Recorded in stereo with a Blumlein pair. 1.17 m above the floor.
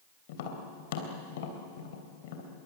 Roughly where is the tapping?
Ahead left.